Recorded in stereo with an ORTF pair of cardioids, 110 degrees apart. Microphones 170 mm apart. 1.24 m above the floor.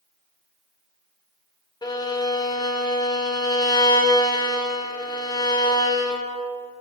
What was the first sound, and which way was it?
A violin, 25° left.